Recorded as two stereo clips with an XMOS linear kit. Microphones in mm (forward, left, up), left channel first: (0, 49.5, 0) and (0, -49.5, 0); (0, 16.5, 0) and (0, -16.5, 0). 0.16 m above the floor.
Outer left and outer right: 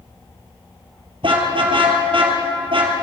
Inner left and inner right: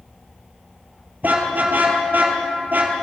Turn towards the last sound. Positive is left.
turn(degrees=-65)  # may be behind; listen again after turning